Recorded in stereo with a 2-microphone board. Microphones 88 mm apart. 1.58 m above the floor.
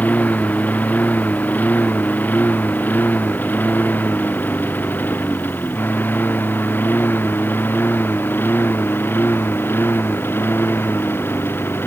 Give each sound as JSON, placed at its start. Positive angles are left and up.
{"t": 0.0, "sound": "a lawn mower", "side_deg": 20}